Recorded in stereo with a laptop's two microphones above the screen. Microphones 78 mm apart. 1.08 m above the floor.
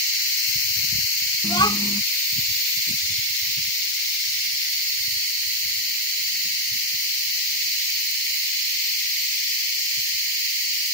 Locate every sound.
1.4 s a child speaking: 70° left (ahead or behind)